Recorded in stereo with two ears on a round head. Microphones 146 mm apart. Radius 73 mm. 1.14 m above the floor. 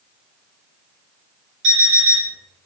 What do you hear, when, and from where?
1.6 s an alarm clock: 75° right (ahead or behind), 1.8 m